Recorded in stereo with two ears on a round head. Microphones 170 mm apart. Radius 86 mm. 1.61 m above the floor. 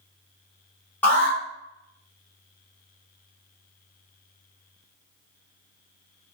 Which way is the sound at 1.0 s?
10° left (ahead or behind).